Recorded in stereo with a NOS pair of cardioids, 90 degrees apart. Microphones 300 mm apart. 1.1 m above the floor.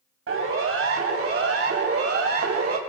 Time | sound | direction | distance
0.3 | a siren | 45° right | 7.5 m